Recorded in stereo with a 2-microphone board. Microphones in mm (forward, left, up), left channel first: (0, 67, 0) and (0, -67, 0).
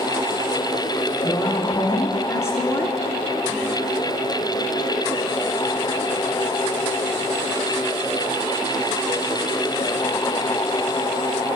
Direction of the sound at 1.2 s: 40° left (ahead or behind).